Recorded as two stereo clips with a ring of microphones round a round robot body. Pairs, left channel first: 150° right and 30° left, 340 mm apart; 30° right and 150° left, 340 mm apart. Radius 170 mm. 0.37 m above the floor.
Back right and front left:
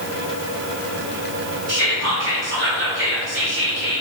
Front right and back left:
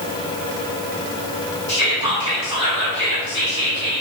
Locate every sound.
1.7 s whispering: 5° left, 1.3 m